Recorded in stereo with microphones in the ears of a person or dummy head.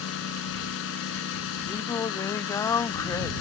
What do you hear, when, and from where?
0.0 s a lawn mower: 70° left (ahead or behind)
1.7 s singing: 15° left (ahead or behind)